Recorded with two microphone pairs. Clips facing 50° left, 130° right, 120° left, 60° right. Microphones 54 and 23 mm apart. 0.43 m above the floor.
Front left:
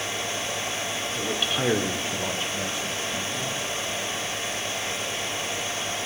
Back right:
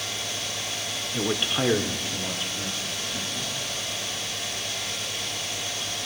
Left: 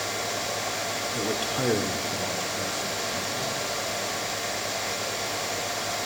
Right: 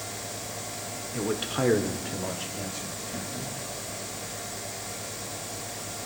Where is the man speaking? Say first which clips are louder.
Back right 3 dB, right 2 dB; 140° right, 0.9 m; by 3.6 s 30° left, 2.5 m.